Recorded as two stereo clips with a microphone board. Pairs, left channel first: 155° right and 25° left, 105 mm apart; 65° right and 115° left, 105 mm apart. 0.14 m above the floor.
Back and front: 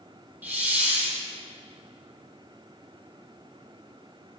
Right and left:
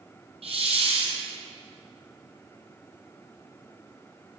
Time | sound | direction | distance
0.4 | a hiss | 95° left | 1.4 m